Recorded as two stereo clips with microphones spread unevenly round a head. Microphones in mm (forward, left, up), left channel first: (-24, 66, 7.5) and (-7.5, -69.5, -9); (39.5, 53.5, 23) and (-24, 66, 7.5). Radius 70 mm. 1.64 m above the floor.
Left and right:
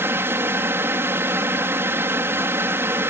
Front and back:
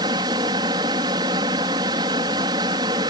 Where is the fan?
160° right.